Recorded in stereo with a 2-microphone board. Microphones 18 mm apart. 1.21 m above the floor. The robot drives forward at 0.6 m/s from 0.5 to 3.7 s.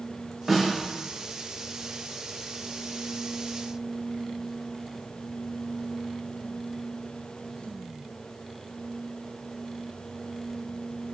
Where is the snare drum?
20° right (ahead or behind), 1.2 m.